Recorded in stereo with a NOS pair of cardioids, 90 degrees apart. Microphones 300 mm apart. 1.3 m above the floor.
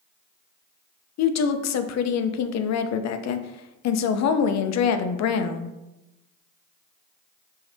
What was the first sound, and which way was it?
A woman speaking, 60° left.